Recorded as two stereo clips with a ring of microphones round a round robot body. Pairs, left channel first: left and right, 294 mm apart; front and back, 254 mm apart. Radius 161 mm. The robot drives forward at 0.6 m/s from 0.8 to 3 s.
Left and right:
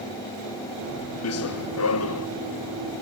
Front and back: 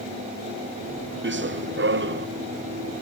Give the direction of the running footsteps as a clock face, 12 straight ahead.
8 o'clock.